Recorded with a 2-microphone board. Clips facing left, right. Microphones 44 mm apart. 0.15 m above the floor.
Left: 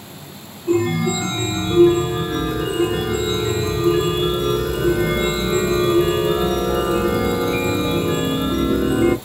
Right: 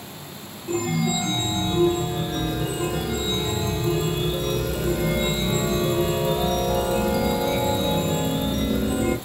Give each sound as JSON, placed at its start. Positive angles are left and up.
{"t": 0.7, "sound": "a chime", "side_deg": 45, "distance_m": 1.1}